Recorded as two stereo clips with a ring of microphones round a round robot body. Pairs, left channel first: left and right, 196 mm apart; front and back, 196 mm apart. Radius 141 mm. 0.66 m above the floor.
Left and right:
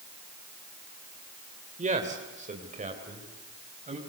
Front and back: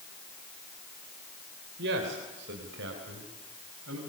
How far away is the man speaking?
About 3 m.